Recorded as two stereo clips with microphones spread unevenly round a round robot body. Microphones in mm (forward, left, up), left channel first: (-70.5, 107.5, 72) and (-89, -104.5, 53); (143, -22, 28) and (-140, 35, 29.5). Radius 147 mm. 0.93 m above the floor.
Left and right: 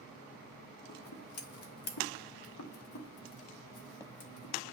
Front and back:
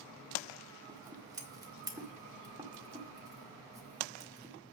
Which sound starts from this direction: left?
Scissors, at 0.9 s.